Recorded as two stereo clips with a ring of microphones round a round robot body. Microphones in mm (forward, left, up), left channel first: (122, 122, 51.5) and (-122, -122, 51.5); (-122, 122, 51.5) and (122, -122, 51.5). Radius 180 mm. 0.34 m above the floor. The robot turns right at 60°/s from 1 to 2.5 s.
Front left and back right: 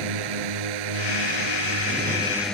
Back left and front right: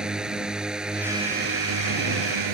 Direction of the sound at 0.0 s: 135° right.